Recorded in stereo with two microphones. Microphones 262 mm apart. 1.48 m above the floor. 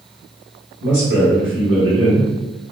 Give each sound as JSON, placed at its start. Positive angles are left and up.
{"t": 0.8, "sound": "a man speaking", "side_deg": -45, "distance_m": 1.9}